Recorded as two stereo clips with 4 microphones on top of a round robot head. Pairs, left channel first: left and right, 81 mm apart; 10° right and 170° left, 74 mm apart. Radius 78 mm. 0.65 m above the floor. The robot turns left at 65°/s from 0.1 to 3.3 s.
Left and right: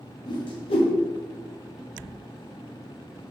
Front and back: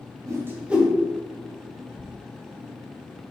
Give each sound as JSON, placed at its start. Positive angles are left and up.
{"t": 0.3, "sound": "a whoosh", "azimuth_deg": 125, "distance_m": 0.7}